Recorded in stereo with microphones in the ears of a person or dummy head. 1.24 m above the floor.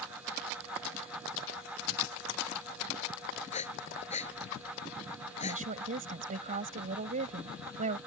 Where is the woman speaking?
45° right (ahead or behind).